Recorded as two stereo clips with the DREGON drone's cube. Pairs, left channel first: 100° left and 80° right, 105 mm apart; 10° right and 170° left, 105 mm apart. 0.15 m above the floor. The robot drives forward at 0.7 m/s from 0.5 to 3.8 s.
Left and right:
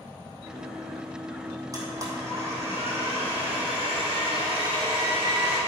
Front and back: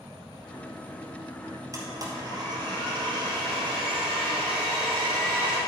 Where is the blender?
135° right, 2.0 m; by 5.6 s 155° right, 3 m.